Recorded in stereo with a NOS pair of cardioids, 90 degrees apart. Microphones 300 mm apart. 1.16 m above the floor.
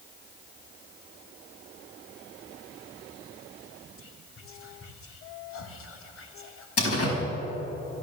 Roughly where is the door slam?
Ahead left.